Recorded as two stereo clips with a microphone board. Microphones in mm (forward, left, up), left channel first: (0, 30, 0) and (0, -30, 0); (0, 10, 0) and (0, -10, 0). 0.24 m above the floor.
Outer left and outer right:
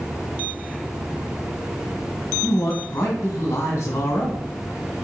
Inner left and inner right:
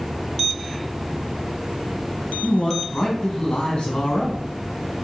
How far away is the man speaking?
About 1.9 m.